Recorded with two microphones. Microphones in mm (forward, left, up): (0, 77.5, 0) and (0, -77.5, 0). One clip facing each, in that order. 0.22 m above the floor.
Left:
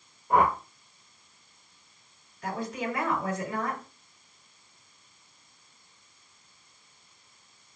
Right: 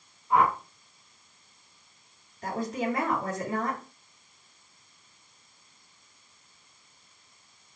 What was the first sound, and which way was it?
A whoosh, 60° left (ahead or behind).